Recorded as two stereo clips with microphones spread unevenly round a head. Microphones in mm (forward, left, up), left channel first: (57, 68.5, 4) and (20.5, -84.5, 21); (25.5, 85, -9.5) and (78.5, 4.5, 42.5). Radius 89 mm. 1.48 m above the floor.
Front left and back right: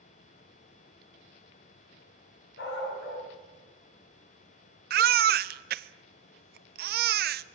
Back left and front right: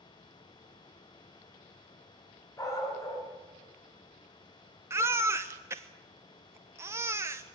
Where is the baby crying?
110° right, 0.6 m.